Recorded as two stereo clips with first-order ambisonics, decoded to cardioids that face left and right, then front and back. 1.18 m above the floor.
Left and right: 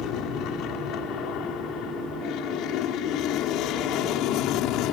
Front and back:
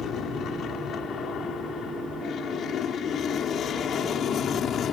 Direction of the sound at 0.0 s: 55° left.